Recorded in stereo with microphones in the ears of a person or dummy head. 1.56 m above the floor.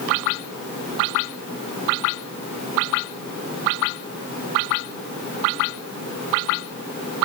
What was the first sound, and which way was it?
Only background noise.